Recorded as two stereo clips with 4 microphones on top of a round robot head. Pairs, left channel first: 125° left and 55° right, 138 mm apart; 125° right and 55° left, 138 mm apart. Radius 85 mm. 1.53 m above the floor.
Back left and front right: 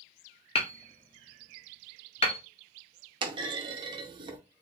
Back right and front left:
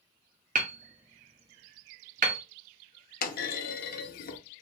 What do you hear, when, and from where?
0.6 s hammering: 80° left, 0.5 m
3.2 s a clunk: 110° right, 0.6 m